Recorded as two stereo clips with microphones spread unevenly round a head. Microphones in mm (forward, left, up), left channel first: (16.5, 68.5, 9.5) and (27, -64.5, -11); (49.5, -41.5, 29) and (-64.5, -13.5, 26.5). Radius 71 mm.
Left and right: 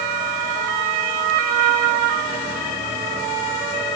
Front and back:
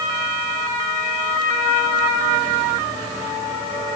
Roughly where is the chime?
I don't hear a chime.